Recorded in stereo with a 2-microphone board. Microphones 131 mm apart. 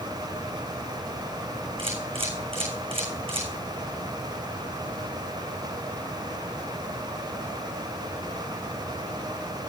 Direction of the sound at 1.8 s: 45° right (ahead or behind).